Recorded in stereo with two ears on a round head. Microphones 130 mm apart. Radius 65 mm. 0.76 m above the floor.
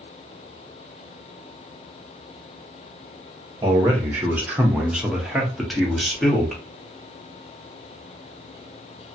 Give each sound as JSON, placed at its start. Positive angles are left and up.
{"t": 3.6, "sound": "a man speaking", "side_deg": -15, "distance_m": 0.9}